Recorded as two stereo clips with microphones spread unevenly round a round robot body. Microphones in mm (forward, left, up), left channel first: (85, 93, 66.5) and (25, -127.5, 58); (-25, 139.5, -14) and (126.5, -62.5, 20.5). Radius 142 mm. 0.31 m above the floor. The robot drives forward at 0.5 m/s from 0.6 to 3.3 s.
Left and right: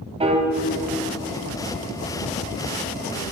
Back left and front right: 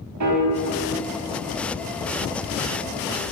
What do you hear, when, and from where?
0.2 s a piano: 45° right, 1.3 m